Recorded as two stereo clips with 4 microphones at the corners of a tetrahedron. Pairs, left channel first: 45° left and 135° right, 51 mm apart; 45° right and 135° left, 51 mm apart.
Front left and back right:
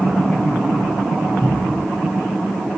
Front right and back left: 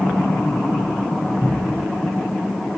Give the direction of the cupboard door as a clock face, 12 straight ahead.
9 o'clock.